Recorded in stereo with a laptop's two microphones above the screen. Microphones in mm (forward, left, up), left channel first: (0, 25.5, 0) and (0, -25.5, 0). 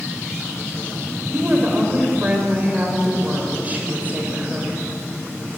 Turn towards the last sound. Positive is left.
turn(degrees=-30)  # may be behind; listen again after turning